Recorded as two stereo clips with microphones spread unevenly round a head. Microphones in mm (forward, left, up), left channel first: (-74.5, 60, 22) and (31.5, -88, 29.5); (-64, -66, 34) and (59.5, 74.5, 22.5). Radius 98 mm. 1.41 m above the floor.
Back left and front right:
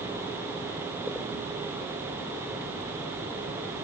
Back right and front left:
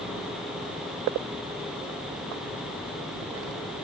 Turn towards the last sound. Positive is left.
No sound to turn to.